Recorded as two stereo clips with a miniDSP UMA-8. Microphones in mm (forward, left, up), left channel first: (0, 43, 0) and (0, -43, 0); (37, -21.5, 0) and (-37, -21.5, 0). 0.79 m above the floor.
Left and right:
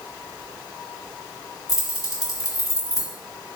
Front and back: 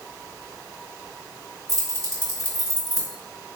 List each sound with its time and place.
1.7 s keys jangling: 140° left, 1.5 m